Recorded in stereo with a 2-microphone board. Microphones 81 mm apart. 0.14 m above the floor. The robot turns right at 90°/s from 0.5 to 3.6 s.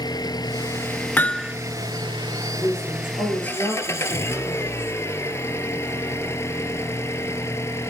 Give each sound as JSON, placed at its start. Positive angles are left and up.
{"t": 0.0, "sound": "an engine running", "azimuth_deg": 115, "distance_m": 1.0}
{"t": 1.2, "sound": "hammering", "azimuth_deg": 150, "distance_m": 0.7}
{"t": 2.6, "sound": "a woman speaking", "azimuth_deg": 30, "distance_m": 5.0}